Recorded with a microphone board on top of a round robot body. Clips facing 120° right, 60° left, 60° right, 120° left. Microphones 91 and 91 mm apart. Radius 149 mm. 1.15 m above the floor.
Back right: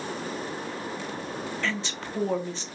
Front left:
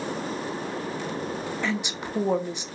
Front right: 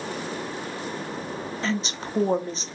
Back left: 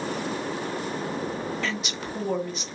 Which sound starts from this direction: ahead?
A woman speaking, at 1.6 s.